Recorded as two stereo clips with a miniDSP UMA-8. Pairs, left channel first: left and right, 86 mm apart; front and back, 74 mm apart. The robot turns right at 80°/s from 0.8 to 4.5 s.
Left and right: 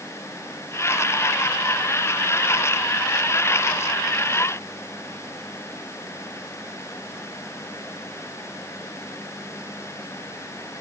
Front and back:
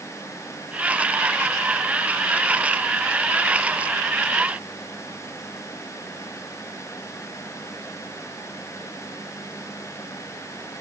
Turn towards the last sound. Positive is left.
No sound to turn to.